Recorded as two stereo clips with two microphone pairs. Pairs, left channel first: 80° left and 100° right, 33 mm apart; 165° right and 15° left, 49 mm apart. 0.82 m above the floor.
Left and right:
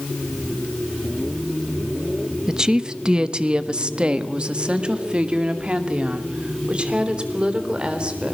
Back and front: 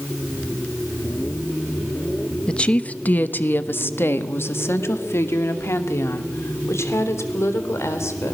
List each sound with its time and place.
2.5 s a woman speaking: 125° right, 1.0 m; by 8.3 s 155° right, 4 m